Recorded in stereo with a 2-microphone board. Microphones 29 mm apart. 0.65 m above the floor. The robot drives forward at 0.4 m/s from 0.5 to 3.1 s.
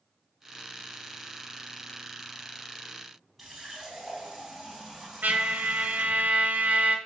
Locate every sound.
3.4 s a running tap: centre (ahead or behind), 3 m
5.2 s a trumpet: 70° right (ahead or behind), 1.0 m